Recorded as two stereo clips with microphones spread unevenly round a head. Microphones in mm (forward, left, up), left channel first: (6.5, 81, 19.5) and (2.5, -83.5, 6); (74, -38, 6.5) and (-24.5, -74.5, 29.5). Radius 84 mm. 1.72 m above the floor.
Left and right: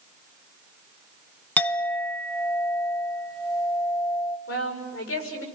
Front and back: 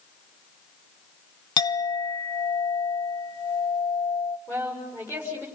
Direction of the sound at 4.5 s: 100° left.